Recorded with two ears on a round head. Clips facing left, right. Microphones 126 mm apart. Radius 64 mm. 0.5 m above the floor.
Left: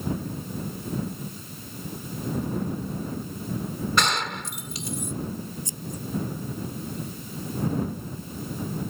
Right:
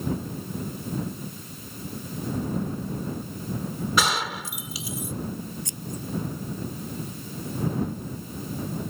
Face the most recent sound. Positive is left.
turn(degrees=-50)  # may be behind; listen again after turning